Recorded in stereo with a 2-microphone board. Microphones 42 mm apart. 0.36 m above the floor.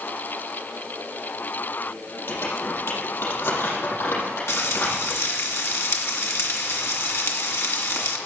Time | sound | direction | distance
2.3 | crumpling | 80° left | 6 m
4.5 | frying | 75° left (ahead or behind) | 2 m